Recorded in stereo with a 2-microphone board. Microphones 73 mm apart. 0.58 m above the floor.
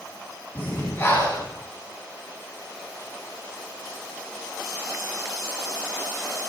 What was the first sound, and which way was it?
Breathing, 30° left (ahead or behind).